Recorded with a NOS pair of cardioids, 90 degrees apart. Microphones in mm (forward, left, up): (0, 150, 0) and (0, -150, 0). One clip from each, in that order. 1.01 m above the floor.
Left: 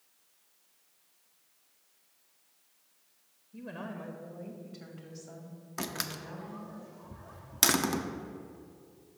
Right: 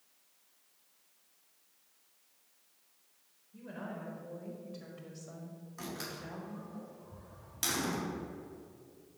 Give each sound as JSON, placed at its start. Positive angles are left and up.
{"t": 3.5, "sound": "a woman speaking", "azimuth_deg": 40, "distance_m": 0.9}
{"t": 5.8, "sound": "a door slam", "azimuth_deg": 65, "distance_m": 0.7}